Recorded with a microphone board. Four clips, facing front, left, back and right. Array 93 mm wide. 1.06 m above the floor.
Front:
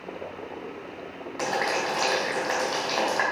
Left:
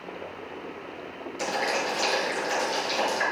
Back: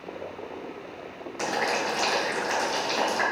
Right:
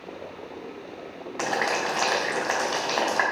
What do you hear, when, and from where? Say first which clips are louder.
1.4 s boiling: right 2 dB, front 1 dB; 75° right, 3 m